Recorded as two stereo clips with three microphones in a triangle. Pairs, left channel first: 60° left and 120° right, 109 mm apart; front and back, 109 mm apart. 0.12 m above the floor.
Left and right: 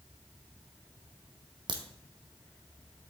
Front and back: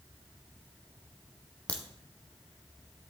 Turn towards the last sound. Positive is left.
turn(degrees=-75)